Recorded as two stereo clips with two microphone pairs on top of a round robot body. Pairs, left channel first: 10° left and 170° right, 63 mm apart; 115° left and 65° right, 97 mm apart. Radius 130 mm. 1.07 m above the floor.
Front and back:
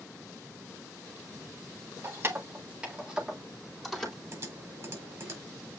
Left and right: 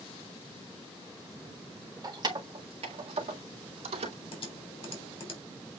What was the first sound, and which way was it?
Keys jangling, 115° right.